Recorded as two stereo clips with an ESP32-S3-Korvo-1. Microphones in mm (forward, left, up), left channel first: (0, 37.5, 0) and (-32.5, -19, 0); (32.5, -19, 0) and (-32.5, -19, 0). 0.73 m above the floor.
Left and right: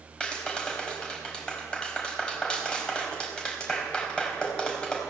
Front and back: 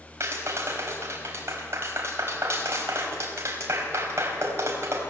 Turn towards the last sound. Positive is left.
turn(degrees=135)